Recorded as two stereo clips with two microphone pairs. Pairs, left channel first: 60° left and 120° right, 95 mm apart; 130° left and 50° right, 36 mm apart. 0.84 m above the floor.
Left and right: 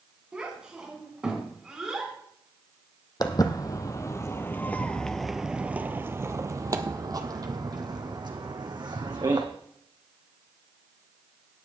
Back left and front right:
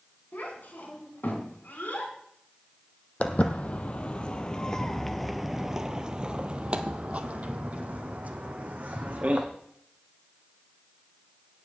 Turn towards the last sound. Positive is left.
turn(degrees=-85)